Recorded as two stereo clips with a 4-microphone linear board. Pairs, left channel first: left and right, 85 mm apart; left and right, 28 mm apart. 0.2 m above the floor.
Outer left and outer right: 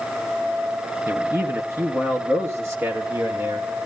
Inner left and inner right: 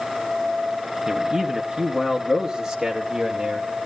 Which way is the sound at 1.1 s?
30° right (ahead or behind).